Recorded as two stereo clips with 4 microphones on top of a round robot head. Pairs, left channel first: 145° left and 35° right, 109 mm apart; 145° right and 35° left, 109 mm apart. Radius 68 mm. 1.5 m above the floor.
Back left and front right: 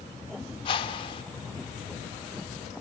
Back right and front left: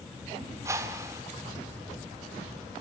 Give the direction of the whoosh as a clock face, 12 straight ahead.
9 o'clock.